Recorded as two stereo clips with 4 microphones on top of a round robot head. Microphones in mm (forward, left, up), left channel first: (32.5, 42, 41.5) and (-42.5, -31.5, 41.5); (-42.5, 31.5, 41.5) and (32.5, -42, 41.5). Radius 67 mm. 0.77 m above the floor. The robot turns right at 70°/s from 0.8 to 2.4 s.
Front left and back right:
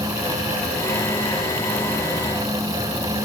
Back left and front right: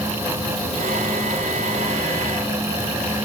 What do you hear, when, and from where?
Only background noise.